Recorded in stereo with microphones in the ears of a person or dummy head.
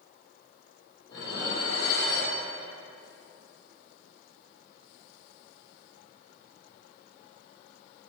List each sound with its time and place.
1.1 s dishes clattering: 25° left (ahead or behind), 1.9 m